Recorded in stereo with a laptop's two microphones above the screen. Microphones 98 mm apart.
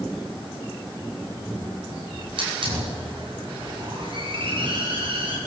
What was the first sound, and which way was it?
A hiss, 60° right (ahead or behind).